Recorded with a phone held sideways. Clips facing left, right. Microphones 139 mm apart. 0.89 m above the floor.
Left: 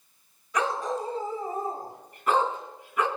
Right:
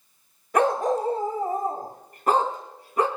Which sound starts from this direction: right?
A dog barking, at 0.5 s.